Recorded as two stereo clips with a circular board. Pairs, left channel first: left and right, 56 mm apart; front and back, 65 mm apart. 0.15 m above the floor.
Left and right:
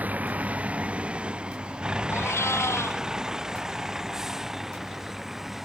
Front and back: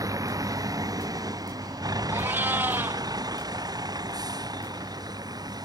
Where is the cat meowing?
120° left.